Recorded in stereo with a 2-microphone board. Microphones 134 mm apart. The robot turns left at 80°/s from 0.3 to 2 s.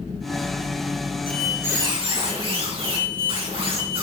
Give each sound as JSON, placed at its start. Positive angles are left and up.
{"t": 1.3, "sound": "a squeak", "azimuth_deg": 15, "distance_m": 3.5}